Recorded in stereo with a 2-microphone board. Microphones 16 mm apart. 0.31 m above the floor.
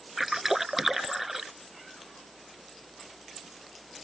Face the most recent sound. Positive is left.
turn(degrees=-20)  # may be behind; listen again after turning